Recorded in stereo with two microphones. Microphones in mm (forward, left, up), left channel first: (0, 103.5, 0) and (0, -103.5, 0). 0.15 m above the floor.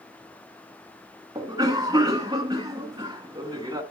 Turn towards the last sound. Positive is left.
turn(degrees=-20)  # may be behind; listen again after turning